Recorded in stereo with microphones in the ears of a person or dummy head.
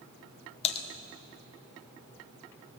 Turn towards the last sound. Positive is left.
turn(degrees=35)  # may be behind; listen again after turning